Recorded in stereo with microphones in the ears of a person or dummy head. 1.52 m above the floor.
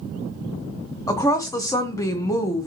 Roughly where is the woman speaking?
Centre.